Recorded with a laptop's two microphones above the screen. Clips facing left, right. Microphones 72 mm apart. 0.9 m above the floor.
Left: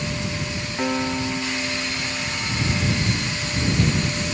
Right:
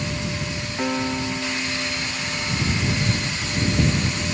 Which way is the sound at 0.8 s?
5° left (ahead or behind).